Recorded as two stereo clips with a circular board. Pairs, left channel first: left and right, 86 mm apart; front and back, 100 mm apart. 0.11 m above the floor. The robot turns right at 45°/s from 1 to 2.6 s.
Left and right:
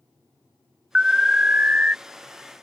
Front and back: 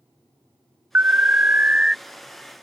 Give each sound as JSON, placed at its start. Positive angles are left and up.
{"t": 0.9, "sound": "an alarm", "azimuth_deg": -160}